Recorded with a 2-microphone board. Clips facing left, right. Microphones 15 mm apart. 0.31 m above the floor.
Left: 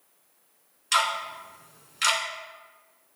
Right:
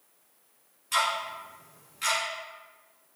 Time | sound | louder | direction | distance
0.9 | ticking | left 2 dB | 80° left | 1.0 m